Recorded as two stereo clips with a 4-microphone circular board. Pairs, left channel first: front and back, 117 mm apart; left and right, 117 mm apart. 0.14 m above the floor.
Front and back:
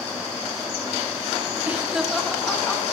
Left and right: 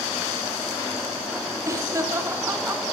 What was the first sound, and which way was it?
Laughter, 115° right.